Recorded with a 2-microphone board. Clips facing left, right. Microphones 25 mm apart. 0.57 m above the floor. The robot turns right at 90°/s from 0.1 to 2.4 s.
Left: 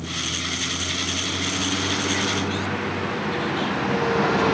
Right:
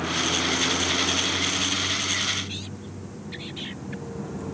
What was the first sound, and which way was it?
A vehicle, 125° right.